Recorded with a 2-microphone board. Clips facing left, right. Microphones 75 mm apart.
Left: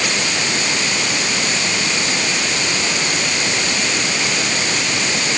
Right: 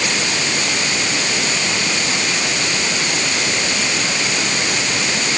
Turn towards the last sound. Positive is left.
No sound to turn to.